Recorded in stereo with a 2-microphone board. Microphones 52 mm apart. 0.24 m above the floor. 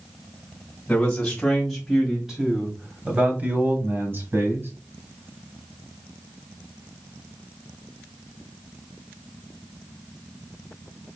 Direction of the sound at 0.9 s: 20° left (ahead or behind).